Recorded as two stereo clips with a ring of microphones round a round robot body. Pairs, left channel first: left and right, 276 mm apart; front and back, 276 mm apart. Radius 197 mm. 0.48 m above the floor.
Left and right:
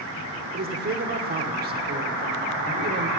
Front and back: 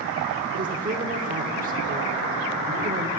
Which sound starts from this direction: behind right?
A man speaking, at 0.5 s.